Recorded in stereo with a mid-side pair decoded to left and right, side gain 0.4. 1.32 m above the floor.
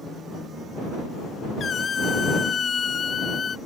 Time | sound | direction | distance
1.6 | a squeak | 45° left | ?